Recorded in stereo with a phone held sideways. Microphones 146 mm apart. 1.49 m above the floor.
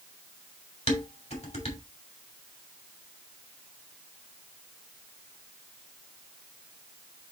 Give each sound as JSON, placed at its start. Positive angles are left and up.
{"t": 0.9, "sound": "dishes clattering", "side_deg": 55, "distance_m": 2.5}